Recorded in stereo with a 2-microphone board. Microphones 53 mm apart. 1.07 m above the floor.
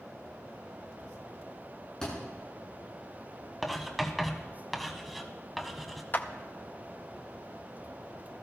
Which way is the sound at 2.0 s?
10° left (ahead or behind).